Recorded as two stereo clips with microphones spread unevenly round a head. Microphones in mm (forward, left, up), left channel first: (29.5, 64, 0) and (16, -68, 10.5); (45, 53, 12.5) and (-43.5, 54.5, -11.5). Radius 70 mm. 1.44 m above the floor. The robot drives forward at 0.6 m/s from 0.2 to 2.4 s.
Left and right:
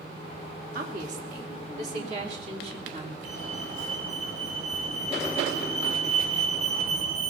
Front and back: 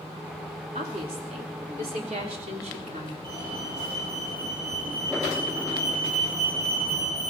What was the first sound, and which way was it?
A woman speaking, 135° right.